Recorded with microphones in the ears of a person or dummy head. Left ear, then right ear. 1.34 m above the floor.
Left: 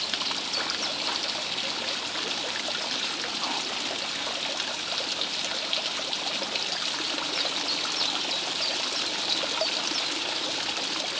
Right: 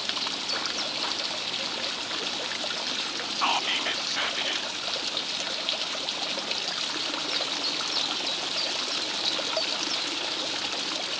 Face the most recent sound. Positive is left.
turn(degrees=-70)  # may be behind; listen again after turning